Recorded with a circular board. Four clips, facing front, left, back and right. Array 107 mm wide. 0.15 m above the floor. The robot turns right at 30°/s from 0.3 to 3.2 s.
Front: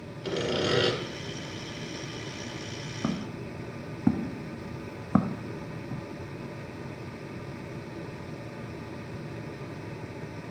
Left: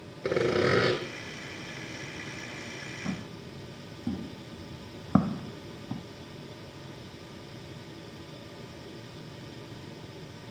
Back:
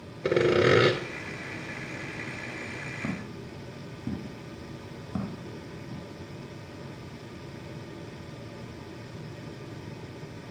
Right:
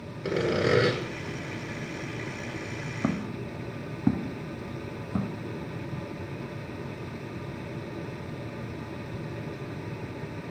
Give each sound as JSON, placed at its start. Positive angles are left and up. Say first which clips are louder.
{"t": 0.2, "sound": "sawing", "louder": "even, back 7 dB", "azimuth_deg": 165, "distance_m": 1.6}
{"t": 3.0, "sound": "footsteps", "louder": "right 8 dB, front 5 dB", "azimuth_deg": -65, "distance_m": 1.3}